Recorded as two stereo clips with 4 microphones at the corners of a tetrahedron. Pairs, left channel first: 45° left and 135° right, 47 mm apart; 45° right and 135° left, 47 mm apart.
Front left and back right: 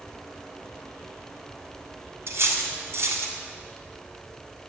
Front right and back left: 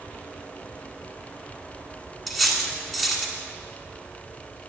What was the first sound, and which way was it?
Cutlery clinking, 135° right.